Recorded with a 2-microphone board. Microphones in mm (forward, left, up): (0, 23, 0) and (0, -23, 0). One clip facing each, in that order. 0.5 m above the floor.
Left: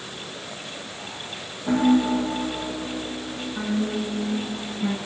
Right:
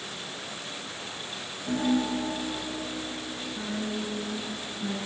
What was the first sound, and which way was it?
A piano, 70° left (ahead or behind).